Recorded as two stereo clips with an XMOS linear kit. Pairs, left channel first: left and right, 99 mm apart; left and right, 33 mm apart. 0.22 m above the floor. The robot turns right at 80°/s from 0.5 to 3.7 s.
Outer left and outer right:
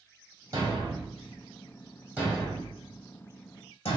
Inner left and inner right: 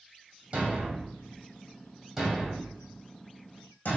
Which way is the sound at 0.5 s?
30° right (ahead or behind).